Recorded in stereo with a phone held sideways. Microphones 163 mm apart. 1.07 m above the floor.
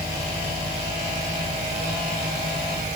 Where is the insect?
75° right (ahead or behind).